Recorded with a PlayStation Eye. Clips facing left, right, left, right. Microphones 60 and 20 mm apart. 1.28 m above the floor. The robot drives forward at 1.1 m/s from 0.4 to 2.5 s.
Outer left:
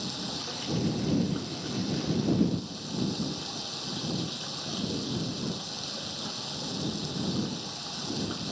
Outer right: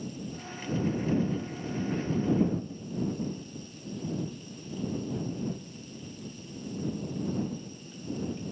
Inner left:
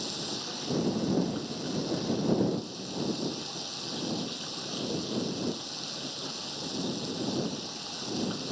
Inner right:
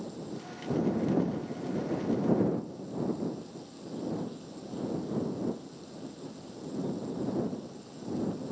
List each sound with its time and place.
0.0 s running water: 85° left; by 8.5 s 90° left